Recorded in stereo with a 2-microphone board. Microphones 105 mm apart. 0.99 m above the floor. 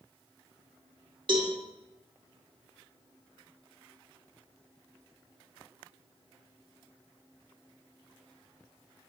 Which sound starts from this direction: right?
A cowbell, at 1.3 s.